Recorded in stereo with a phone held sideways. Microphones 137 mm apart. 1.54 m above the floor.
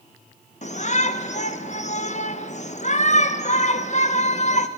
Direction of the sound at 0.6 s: 60° left (ahead or behind).